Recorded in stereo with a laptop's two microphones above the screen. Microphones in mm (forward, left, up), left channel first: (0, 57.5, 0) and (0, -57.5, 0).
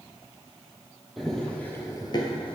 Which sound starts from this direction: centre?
Running footsteps, at 1.2 s.